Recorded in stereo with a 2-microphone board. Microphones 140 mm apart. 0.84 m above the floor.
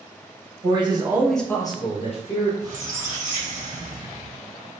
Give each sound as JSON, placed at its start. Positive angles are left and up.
{"t": 0.6, "sound": "a man speaking", "side_deg": -40, "distance_m": 0.9}
{"t": 2.6, "sound": "a squeak", "side_deg": -65, "distance_m": 2.0}